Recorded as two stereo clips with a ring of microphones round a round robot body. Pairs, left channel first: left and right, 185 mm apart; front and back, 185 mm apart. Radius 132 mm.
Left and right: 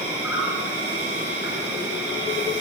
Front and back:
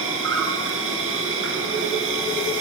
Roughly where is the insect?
Behind.